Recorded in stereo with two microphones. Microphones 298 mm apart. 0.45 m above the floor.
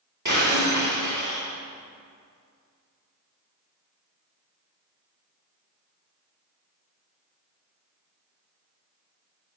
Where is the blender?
I don't hear a blender.